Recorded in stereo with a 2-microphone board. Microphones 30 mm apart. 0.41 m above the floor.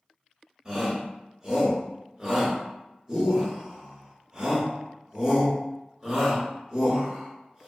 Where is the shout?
15° right (ahead or behind), 1.3 m.